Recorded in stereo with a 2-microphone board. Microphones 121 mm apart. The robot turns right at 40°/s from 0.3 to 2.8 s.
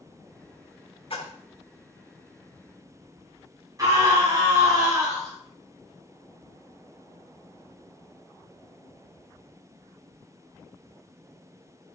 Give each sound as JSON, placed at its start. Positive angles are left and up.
{"t": 1.1, "sound": "a splash", "side_deg": 55, "distance_m": 1.7}
{"t": 3.8, "sound": "a scream", "side_deg": -30, "distance_m": 2.0}